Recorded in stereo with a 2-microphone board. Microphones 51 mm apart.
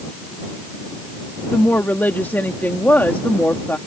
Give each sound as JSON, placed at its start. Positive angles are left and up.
{"t": 1.5, "sound": "a woman speaking", "side_deg": 40}